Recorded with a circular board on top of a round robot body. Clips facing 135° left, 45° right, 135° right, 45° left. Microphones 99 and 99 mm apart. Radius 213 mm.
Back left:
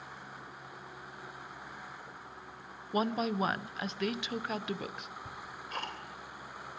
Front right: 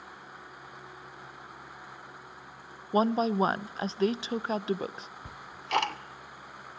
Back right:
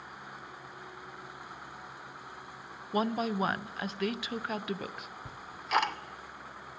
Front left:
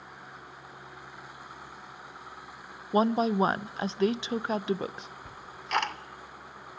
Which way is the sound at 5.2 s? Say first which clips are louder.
Front right 6 dB, back right 1 dB; 50° right.